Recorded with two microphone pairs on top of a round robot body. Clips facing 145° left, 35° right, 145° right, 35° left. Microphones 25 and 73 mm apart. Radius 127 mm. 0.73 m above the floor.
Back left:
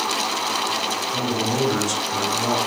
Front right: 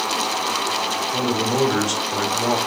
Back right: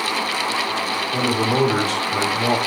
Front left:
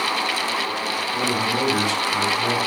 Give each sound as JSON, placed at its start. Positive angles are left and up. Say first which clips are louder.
{"t": 1.1, "sound": "a man speaking", "louder": "front right 4 dB, back right 4 dB", "azimuth_deg": -110, "distance_m": 3.5}